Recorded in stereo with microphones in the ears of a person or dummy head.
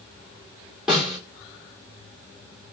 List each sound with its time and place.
0.9 s a snare drum: 5° right (ahead or behind), 1.8 m